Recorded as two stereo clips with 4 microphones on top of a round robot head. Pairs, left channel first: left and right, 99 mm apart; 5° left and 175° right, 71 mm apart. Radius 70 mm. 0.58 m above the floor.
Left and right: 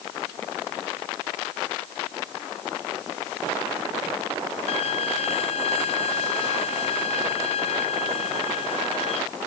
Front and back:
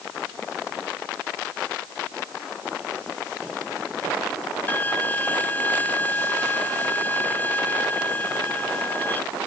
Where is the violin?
70° left.